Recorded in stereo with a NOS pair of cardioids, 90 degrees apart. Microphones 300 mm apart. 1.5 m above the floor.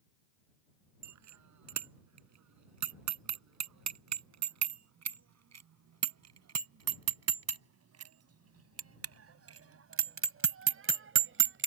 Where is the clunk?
I don't hear a clunk.